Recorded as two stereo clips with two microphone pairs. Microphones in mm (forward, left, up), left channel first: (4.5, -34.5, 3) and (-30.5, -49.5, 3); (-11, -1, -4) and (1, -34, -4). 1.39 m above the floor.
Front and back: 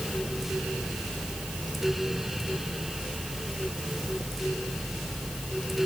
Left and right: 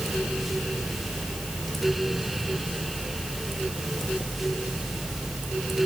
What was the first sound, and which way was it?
Only background noise.